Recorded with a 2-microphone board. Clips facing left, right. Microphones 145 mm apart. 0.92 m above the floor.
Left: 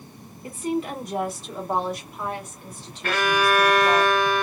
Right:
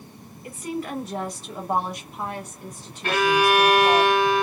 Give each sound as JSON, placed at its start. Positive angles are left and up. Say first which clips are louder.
{"t": 0.4, "sound": "a woman speaking", "louder": "left 4 dB", "side_deg": 35, "distance_m": 1.0}
{"t": 3.0, "sound": "a violin", "louder": "right 2 dB", "side_deg": -25, "distance_m": 1.2}